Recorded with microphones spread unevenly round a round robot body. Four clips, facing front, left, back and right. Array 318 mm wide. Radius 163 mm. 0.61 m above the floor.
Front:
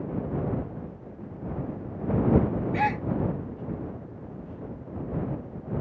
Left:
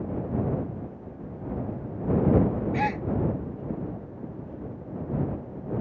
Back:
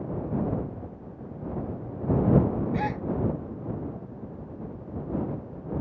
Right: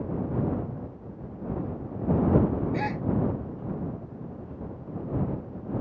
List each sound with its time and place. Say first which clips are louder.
2.7 s a gasp: left 3 dB, front 3 dB; 40° left